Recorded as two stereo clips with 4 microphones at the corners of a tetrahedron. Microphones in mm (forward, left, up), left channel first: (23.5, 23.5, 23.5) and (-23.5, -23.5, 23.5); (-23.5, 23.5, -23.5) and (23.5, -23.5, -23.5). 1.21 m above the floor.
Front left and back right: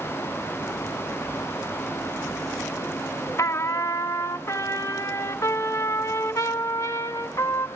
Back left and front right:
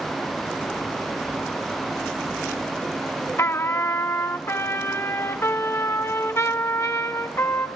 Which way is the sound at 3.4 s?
90° left.